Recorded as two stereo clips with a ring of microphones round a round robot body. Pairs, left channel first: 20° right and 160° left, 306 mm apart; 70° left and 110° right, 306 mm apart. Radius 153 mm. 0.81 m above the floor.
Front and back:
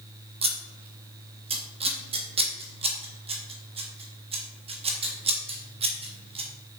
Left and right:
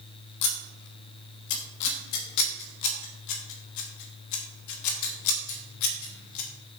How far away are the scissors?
About 1.3 m.